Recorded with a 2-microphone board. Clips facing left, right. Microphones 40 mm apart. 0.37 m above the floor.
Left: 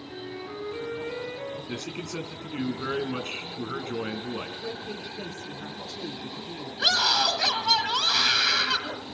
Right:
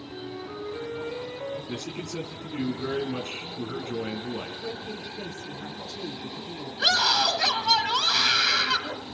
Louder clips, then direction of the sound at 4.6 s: Even; 25° left (ahead or behind).